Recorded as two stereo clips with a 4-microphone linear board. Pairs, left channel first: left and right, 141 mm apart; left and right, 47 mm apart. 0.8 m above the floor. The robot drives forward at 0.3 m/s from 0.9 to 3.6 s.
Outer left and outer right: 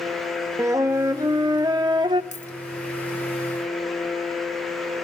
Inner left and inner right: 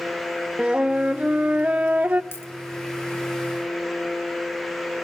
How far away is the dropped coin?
About 0.7 m.